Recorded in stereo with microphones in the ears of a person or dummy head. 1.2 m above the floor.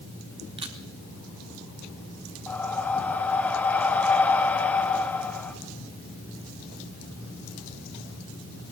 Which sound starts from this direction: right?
A camera shutter, at 0.6 s.